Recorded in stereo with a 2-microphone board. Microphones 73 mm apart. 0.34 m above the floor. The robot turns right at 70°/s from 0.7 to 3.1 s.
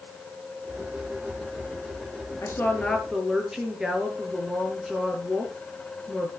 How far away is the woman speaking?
About 4.5 m.